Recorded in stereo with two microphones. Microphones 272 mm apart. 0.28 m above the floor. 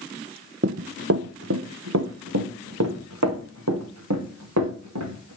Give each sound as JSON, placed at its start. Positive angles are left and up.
{"t": 0.6, "sound": "running footsteps", "side_deg": -45, "distance_m": 0.6}